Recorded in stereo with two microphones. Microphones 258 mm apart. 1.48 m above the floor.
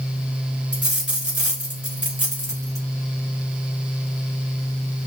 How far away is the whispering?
No whispering in this recording.